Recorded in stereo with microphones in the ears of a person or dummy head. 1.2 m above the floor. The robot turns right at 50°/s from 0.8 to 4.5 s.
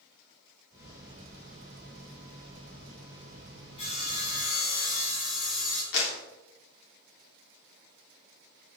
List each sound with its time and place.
3.8 s sawing: 30° left, 7 m; by 5.8 s 65° left, 7 m
5.9 s a clap: 65° left (ahead or behind), 3.5 m